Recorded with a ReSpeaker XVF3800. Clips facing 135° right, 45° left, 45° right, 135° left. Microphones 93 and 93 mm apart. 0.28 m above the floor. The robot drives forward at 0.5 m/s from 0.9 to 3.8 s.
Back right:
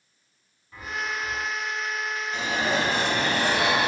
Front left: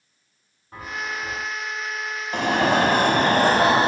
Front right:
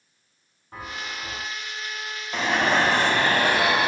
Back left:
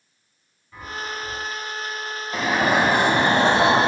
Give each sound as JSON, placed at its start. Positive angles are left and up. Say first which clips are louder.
{"t": 0.7, "sound": "a chime", "louder": "front left 1 dB, back left 3 dB", "azimuth_deg": 0, "distance_m": 8.5}
{"t": 2.3, "sound": "an alarm", "louder": "front left 7 dB, back left 2 dB", "azimuth_deg": 50, "distance_m": 1.4}